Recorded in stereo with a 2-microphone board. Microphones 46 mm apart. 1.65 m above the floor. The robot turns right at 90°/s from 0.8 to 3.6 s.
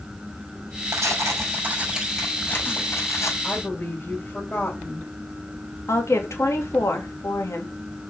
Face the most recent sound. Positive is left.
turn(degrees=80)